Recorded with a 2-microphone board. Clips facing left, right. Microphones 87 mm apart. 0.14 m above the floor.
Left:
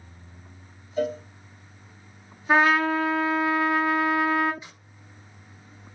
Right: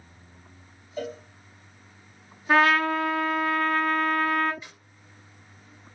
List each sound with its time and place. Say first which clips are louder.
1.0 s a cowbell: left 7 dB; 45° left (ahead or behind), 2.5 m
2.5 s a trumpet: left 1 dB; 10° left (ahead or behind), 0.7 m
4.6 s a snare drum: even; 20° left (ahead or behind), 2.5 m